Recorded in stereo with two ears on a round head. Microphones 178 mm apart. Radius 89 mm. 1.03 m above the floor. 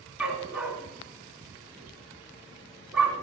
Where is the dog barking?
5° right (ahead or behind), 2.5 m.